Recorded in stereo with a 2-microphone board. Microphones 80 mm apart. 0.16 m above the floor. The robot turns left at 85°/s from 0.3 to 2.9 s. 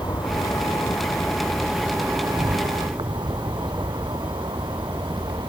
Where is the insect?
115° left; by 5.5 s 110° right.